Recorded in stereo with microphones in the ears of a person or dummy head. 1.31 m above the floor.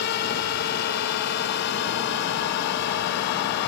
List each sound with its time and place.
0.0 s a drone: 60° left (ahead or behind); by 3.7 s 65° left (ahead or behind)